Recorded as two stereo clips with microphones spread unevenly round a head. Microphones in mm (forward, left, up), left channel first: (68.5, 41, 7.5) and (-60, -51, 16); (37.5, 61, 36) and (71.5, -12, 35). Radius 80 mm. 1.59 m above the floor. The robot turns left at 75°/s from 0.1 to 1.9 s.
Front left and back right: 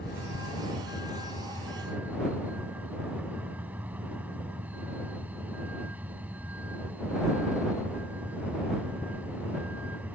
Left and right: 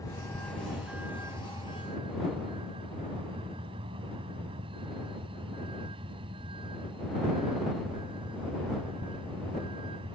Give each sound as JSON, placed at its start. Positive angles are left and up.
{"t": 0.0, "sound": "a vehicle", "azimuth_deg": 70}